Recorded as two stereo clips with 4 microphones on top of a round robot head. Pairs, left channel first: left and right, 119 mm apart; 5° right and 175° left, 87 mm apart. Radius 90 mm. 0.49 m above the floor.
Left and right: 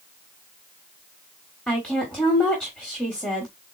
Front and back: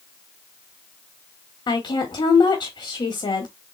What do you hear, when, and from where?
1.7 s a woman speaking: 10° left, 1.2 m